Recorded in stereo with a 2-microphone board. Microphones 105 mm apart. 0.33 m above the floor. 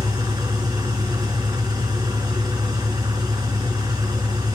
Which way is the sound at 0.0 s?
35° right (ahead or behind).